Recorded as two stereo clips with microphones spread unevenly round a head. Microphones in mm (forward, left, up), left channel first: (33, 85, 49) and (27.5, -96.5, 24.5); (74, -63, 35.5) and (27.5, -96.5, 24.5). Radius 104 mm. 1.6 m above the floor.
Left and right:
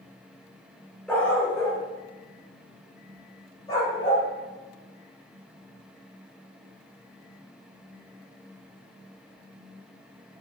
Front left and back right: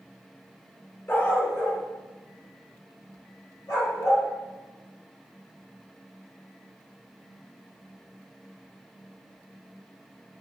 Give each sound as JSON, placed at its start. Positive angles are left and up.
{"t": 1.1, "sound": "a dog barking", "azimuth_deg": 10, "distance_m": 1.8}